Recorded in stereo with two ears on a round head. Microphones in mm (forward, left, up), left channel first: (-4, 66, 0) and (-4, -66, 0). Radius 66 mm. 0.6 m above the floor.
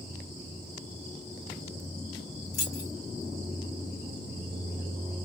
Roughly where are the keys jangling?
Left.